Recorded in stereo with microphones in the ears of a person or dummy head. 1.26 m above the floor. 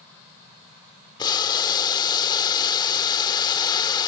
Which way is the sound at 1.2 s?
20° left (ahead or behind).